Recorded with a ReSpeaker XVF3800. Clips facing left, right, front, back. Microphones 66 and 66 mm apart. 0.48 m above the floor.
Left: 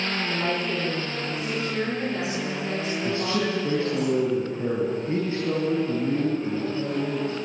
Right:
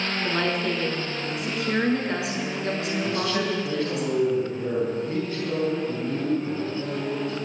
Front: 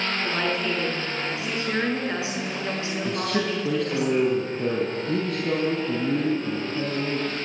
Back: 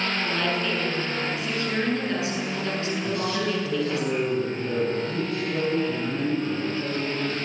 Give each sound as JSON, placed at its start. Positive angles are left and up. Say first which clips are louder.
{"t": 0.2, "sound": "a woman speaking", "louder": "right 4 dB, front 2 dB", "azimuth_deg": -70, "distance_m": 7.0}
{"t": 3.0, "sound": "a man speaking", "louder": "left 1 dB, front 2 dB", "azimuth_deg": 30, "distance_m": 4.0}